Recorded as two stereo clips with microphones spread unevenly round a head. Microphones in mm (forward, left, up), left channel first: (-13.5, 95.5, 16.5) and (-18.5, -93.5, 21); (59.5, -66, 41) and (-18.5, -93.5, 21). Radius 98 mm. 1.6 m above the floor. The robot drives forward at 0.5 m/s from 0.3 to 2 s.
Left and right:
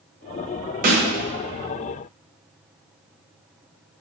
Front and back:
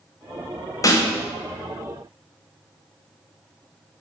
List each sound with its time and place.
0.8 s a snare drum: 40° right, 0.5 m; by 1.1 s 50° right, 0.5 m